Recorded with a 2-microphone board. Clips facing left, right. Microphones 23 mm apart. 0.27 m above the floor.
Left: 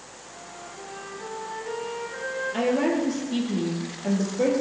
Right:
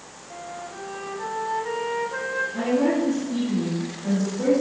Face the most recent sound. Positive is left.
turn(degrees=80)